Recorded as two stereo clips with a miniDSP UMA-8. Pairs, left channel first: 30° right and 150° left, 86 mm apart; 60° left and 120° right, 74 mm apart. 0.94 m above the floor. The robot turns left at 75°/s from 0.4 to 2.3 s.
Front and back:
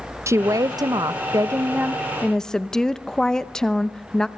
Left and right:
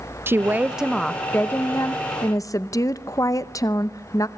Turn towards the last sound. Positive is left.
turn(degrees=50)